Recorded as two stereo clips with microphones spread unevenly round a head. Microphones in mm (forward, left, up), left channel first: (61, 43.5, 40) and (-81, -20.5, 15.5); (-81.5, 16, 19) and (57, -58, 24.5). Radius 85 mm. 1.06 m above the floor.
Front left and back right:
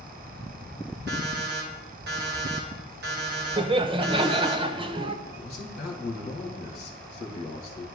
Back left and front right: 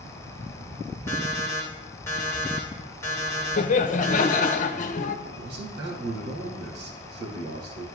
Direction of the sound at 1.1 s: 135° right.